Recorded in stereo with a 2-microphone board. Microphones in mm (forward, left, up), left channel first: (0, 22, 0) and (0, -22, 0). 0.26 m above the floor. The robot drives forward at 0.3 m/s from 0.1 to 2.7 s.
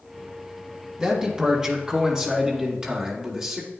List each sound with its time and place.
1.0 s a man speaking: 20° right (ahead or behind), 2 m; by 3.7 s 15° right (ahead or behind), 2.5 m